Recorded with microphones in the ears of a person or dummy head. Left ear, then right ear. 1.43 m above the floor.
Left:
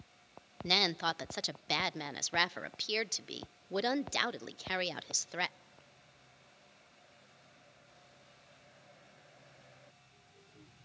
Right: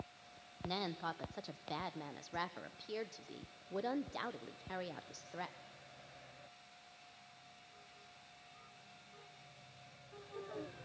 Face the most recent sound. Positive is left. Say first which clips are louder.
# left 11 dB
turn(degrees=75)  # may be behind; listen again after turning